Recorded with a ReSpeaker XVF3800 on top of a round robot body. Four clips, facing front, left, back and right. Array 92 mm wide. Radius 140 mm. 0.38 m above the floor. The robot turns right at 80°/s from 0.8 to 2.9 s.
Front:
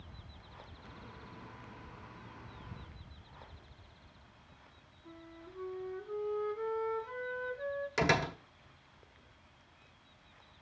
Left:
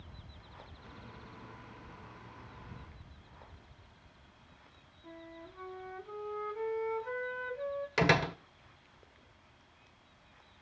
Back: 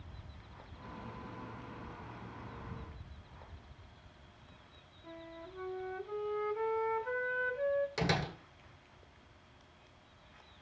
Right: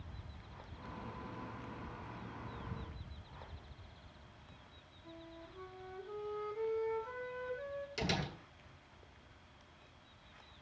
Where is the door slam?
75° left, 1.6 m.